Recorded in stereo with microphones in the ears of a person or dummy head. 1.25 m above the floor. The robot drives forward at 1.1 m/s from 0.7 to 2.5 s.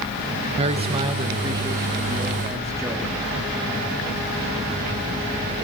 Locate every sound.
0.6 s a man speaking: 30° right (ahead or behind), 1.4 m; by 3.1 s 10° right (ahead or behind), 3 m